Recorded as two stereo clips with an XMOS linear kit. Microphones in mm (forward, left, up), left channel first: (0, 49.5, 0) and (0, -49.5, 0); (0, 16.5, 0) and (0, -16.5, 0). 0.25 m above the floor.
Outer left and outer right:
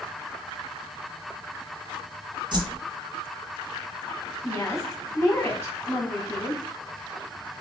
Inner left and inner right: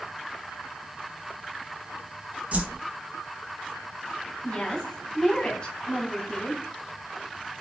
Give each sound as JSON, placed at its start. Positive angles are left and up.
{"t": 2.5, "sound": "a whoosh", "side_deg": -50, "distance_m": 0.7}
{"t": 4.4, "sound": "a woman speaking", "side_deg": 25, "distance_m": 1.8}